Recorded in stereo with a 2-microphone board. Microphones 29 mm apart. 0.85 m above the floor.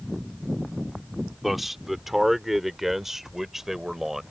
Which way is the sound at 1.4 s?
10° right (ahead or behind).